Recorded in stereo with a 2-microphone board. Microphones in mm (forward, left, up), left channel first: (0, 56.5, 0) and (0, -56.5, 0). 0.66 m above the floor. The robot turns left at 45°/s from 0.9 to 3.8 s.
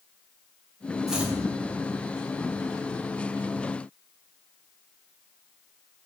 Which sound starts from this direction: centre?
Chopping, at 1.1 s.